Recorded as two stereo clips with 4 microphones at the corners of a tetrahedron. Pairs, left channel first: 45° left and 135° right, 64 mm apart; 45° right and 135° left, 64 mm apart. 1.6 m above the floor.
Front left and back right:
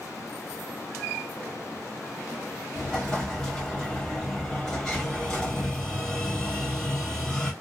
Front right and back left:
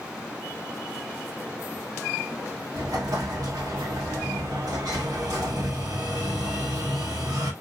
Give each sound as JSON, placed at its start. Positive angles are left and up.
{"t": 2.7, "sound": "an explosion", "azimuth_deg": 120, "distance_m": 1.1}